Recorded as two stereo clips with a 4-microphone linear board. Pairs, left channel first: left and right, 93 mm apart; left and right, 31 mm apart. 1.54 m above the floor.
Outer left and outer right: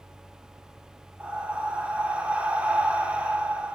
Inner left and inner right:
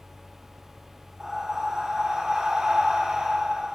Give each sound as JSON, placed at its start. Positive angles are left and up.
{"t": 1.2, "sound": "breathing", "side_deg": -15, "distance_m": 2.5}